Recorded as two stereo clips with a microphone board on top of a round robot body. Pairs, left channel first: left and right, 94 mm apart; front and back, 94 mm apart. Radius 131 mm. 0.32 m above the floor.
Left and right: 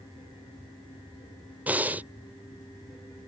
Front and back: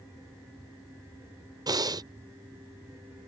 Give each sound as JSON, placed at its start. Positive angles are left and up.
{"t": 1.7, "sound": "breathing", "azimuth_deg": -160}